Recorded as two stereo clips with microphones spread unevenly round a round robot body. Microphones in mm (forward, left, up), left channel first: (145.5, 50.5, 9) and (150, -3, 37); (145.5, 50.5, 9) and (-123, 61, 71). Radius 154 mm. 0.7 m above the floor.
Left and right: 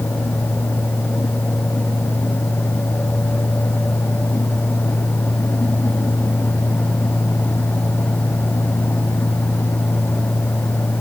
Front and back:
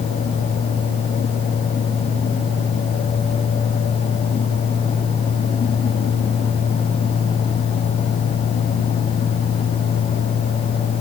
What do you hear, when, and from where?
Only background noise.